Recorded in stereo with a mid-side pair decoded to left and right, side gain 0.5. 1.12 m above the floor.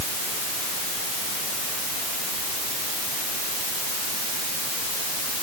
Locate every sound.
Only background noise.